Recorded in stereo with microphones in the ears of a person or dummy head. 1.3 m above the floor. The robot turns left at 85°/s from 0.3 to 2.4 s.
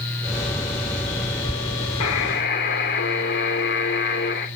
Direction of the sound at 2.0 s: 90° left.